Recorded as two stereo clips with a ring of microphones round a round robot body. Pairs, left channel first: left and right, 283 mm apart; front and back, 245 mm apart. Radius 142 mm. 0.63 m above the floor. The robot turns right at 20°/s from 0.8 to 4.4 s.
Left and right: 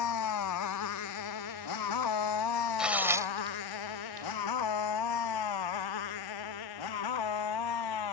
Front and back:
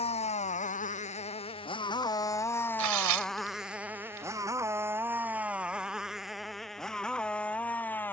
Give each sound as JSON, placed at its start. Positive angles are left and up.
{"t": 0.0, "sound": "a motorcycle", "azimuth_deg": 65}
{"t": 2.8, "sound": "tearing paper", "azimuth_deg": 180}